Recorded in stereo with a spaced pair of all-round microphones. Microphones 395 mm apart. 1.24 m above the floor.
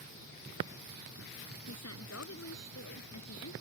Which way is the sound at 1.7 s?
40° left (ahead or behind).